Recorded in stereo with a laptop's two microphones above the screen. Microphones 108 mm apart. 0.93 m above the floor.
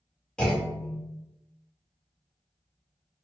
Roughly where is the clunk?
Centre.